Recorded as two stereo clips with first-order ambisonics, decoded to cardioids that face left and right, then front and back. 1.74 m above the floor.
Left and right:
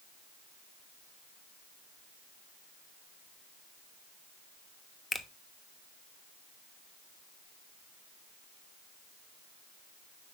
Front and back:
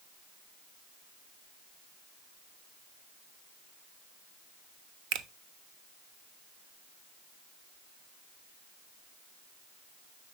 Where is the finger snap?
165° left, 0.5 m.